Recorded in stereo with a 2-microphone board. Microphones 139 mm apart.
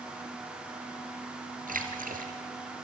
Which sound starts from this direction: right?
A splash, at 1.7 s.